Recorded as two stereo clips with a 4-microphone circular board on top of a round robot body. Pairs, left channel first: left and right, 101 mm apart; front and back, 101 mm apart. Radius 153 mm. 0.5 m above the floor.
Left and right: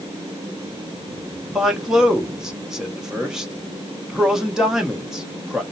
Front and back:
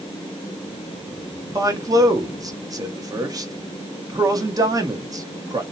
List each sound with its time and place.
1.6 s a man speaking: 170° right, 1.1 m